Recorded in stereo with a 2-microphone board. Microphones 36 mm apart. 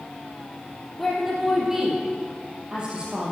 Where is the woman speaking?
Centre (ahead or behind), 3 m; by 3.3 s 30° right (ahead or behind), 3.5 m.